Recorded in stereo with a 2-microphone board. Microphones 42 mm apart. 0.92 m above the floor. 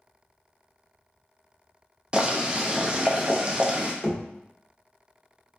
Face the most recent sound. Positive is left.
turn(degrees=20)  # may be behind; listen again after turning